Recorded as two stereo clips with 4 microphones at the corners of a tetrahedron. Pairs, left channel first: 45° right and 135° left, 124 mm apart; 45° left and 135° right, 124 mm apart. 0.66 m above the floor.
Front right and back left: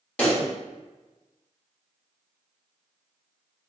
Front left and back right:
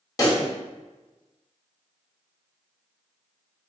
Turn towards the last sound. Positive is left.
turn(degrees=25)